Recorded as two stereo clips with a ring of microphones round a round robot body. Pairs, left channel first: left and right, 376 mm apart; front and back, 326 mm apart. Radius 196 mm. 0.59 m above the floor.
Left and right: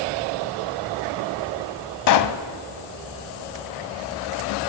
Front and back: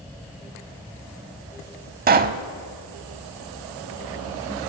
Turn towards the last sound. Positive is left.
turn(degrees=125)